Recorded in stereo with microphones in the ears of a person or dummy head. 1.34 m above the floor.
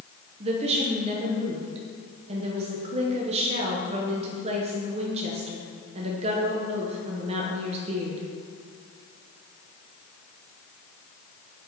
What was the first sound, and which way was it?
A woman speaking, 35° right (ahead or behind).